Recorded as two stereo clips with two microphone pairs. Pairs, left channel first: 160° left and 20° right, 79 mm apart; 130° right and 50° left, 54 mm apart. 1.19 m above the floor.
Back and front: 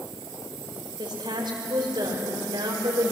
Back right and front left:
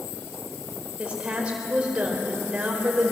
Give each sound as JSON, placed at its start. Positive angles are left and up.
{"t": 1.0, "sound": "a woman speaking", "azimuth_deg": -25, "distance_m": 4.5}